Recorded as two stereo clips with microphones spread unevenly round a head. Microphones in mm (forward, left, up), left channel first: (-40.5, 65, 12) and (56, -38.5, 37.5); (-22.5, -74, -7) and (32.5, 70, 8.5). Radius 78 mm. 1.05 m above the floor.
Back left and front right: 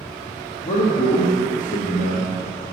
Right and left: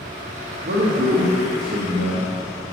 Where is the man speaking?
105° left, 0.9 m.